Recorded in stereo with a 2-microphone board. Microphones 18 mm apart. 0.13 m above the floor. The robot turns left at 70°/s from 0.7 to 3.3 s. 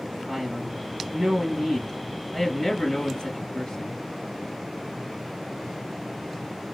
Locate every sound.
0.3 s a man speaking: 80° right, 2.5 m; by 4.0 s 95° left, 2.5 m